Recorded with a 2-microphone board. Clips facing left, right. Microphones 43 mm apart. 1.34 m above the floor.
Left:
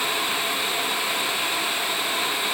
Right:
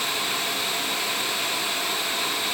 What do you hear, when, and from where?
Only background noise.